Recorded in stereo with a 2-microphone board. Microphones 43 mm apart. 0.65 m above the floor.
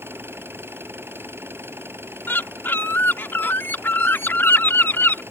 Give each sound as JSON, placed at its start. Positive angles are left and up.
{"t": 0.0, "sound": "an engine running", "side_deg": -60}
{"t": 2.3, "sound": "a bird", "side_deg": 55}